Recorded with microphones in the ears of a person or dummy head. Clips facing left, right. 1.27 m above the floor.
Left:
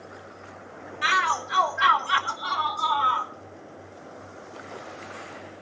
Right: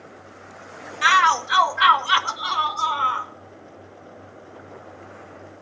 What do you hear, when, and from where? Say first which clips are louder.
1.0 s a shout: right 7 dB; 70° right (ahead or behind), 1.9 m; by 3.3 s 40° right (ahead or behind), 3 m